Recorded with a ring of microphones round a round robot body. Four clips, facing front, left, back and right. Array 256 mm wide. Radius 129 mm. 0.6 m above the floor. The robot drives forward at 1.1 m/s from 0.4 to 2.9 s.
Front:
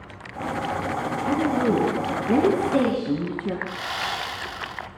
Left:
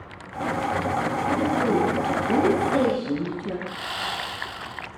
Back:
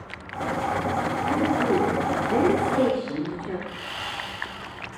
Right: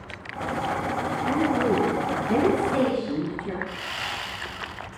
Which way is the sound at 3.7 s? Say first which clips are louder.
Left 2 dB, front 5 dB; 25° left.